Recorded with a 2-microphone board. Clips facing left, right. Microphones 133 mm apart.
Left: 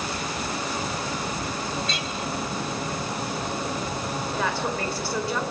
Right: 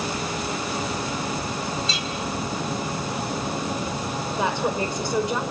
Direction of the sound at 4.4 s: 20° right (ahead or behind).